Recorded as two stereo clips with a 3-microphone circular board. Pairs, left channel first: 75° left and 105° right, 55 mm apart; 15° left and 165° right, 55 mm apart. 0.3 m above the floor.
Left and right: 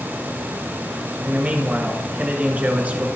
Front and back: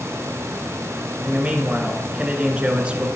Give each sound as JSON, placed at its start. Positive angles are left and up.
{"t": 1.2, "sound": "a man speaking", "azimuth_deg": -120, "distance_m": 1.5}